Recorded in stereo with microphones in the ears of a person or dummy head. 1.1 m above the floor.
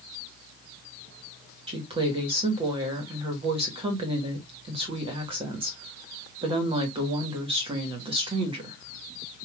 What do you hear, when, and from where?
1.7 s a woman speaking: 20° right (ahead or behind), 1.4 m